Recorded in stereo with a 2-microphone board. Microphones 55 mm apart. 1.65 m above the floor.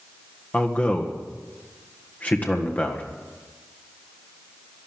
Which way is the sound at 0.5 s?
25° left (ahead or behind).